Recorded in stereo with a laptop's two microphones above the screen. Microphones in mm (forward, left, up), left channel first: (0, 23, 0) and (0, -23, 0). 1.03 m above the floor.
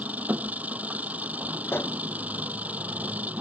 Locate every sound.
0.0 s an engine running: 35° right (ahead or behind)
1.7 s a pop: 55° left (ahead or behind)